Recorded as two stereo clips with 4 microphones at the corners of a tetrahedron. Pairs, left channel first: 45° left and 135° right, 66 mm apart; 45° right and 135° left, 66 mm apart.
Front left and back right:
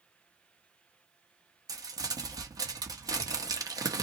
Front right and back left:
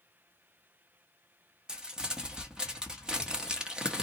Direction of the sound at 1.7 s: 145° right.